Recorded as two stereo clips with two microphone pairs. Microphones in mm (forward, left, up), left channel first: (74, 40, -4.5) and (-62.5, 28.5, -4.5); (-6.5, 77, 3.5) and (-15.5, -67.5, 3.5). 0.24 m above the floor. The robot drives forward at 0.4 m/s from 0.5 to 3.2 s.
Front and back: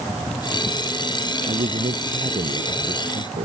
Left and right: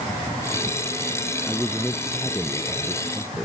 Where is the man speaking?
Straight behind.